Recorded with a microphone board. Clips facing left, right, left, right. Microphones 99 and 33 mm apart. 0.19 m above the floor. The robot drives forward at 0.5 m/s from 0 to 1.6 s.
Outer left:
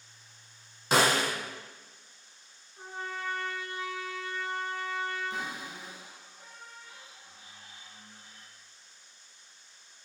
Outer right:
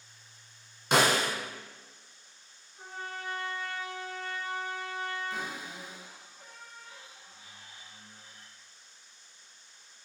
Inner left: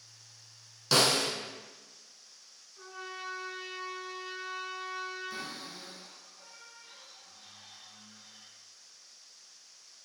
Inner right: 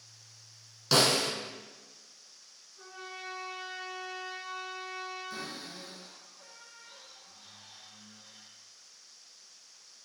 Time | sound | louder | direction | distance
0.9 | a snare drum | even, inner right 1 dB | 5° left (ahead or behind) | 1.2 m
2.8 | a trumpet | outer left 2 dB, inner left 2 dB | 25° left (ahead or behind) | 1.1 m
5.3 | a cupboard door | even, even | 20° left (ahead or behind) | 1.7 m